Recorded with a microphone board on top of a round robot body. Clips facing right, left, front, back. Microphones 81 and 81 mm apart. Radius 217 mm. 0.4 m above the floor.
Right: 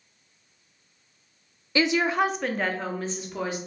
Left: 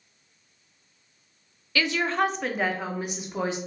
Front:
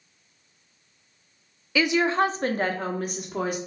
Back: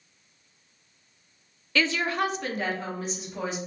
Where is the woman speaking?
70° right, 0.8 m; by 3.6 s 25° left, 1.2 m.